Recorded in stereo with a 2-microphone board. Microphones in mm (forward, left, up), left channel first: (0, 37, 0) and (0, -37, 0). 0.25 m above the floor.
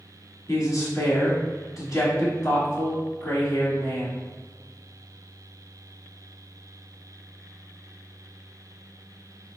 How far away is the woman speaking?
About 1.5 m.